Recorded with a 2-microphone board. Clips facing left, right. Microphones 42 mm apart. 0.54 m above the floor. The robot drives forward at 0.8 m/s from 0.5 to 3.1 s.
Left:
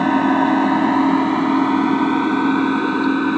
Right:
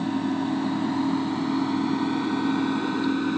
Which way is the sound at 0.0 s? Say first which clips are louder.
Left 11 dB; 60° left (ahead or behind).